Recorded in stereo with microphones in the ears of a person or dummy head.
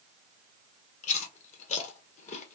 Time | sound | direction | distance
1.0 | chewing | 40° left (ahead or behind) | 1.0 m